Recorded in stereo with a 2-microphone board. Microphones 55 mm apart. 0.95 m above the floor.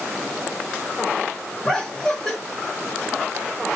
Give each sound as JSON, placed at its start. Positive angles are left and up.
{"t": 1.6, "sound": "laughter", "side_deg": 15, "distance_m": 1.7}